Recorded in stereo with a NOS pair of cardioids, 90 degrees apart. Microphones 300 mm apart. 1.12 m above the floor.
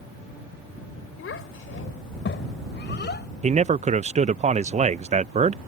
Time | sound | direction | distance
1.2 | a child speaking | 45° left | ?
3.4 | a man speaking | 25° right | ?